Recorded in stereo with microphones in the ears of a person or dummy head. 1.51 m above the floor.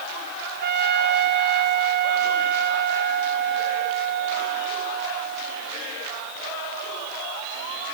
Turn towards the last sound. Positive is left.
turn(degrees=-50)  # may be behind; listen again after turning